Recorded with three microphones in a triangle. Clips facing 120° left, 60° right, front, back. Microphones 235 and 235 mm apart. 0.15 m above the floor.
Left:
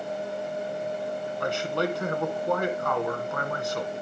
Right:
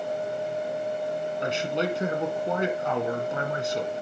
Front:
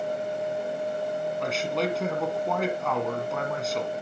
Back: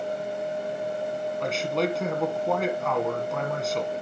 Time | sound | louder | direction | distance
1.4 | a man speaking | left 1 dB, back 3 dB | 90° right | 1.7 m